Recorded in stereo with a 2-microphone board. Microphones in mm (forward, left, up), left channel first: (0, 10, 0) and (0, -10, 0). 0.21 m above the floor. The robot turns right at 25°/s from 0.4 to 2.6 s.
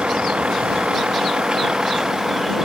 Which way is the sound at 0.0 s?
80° right.